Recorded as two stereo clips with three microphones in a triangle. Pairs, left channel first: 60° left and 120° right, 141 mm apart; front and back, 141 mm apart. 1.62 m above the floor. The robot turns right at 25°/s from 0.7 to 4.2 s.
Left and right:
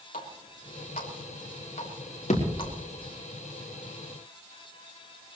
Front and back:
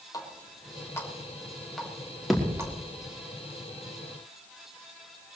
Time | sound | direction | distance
0.1 | a running tap | 65° left | 3.5 m
2.3 | a thud | 90° left | 4.5 m